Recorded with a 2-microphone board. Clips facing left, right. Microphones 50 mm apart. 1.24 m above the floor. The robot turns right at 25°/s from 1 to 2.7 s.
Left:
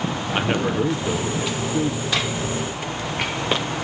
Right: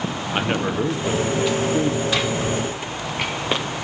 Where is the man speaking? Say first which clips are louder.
Even; straight behind, 0.6 m; by 2.7 s 140° right, 0.6 m.